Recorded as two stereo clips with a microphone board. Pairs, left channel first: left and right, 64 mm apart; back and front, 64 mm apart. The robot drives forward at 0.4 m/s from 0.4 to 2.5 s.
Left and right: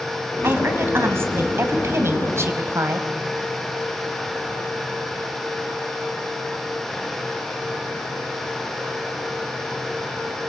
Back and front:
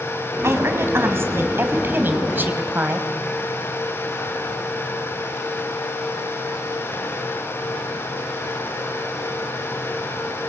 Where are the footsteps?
No footsteps in this recording.